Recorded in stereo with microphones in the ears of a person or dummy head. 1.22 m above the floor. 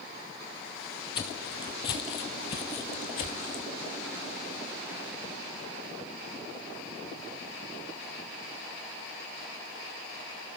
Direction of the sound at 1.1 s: 30° left (ahead or behind).